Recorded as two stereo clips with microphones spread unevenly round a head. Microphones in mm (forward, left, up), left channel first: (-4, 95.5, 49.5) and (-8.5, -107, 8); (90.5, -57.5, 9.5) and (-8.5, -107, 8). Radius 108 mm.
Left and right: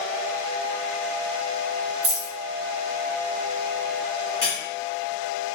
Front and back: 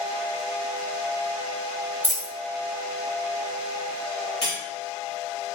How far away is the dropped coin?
About 0.9 m.